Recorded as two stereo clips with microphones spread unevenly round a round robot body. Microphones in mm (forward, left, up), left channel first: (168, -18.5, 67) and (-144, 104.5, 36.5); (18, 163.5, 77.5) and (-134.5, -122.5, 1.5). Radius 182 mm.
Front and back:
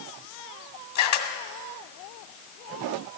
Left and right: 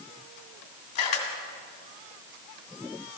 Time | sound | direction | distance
0.9 | a camera shutter | 10° left | 2 m